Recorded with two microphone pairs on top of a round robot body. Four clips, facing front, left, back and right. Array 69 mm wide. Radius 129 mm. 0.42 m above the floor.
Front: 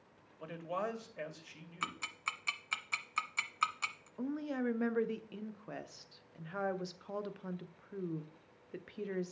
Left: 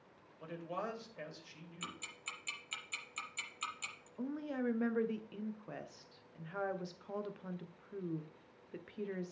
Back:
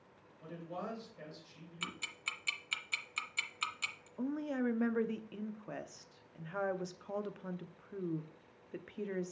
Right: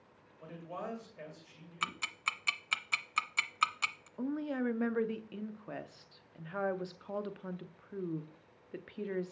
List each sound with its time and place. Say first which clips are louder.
0.4 s a man speaking: left 1 dB, front 5 dB; 15° left, 2 m
1.8 s ticking: right 11 dB, front 3 dB; 50° right, 0.5 m
4.2 s a woman speaking: right 4 dB, back 1 dB; 110° right, 0.8 m